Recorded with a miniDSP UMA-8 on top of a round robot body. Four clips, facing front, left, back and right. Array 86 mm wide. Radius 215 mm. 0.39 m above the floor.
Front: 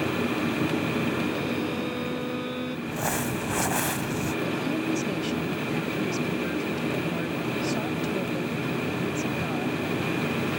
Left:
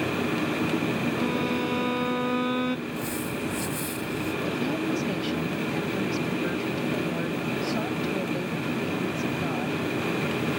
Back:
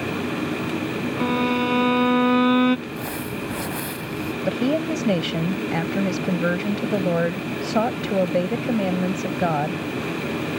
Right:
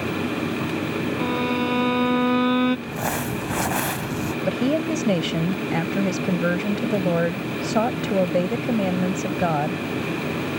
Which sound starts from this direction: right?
Crumpling, at 2.9 s.